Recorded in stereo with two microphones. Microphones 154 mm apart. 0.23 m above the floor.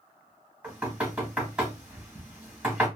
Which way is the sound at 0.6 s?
10° right (ahead or behind).